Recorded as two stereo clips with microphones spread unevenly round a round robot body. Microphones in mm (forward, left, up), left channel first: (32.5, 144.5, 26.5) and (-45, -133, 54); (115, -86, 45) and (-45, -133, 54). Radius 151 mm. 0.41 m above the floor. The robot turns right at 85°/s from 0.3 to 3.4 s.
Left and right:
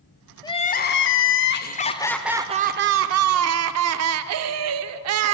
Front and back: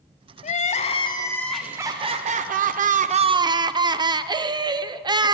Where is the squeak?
No squeak in this recording.